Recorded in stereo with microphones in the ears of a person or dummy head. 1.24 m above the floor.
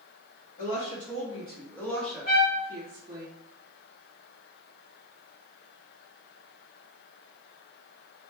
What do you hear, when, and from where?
0.6 s a woman speaking: 45° left (ahead or behind), 1.1 m; by 3.3 s 25° right (ahead or behind), 1.3 m
2.3 s a trumpet: 45° left (ahead or behind), 1.0 m